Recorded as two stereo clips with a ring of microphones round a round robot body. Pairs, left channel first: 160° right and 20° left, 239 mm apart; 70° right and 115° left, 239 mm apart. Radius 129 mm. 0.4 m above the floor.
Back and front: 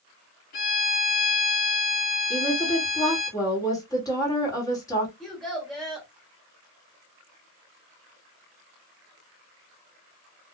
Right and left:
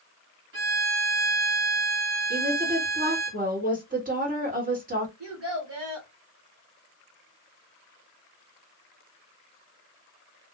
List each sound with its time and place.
0.5 s a violin: 150° left, 1.1 m
2.3 s a woman speaking: 135° left, 1.5 m
5.2 s a child speaking: 115° left, 1.1 m